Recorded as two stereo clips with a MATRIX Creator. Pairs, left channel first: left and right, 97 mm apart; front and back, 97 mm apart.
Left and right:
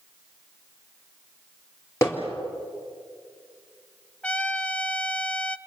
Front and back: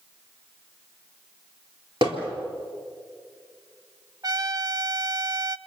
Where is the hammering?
150° left, 4 m.